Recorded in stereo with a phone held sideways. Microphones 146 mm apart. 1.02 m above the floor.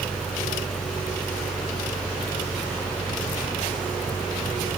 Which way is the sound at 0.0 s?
Centre (ahead or behind).